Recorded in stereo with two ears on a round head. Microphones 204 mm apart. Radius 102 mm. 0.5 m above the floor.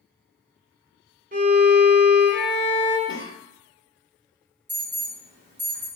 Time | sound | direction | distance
1.3 | a violin | 35° right (ahead or behind) | 0.9 m
3.1 | a cough | 20° left (ahead or behind) | 0.9 m
4.7 | an alarm | 35° right (ahead or behind) | 1.8 m